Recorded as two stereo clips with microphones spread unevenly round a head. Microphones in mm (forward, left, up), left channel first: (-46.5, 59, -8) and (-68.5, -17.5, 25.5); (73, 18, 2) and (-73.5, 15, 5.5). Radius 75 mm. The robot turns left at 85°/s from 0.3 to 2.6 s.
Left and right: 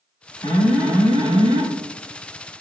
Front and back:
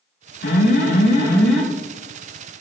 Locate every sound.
0.4 s an alarm: 10° left, 5 m; by 1.6 s 95° right, 5 m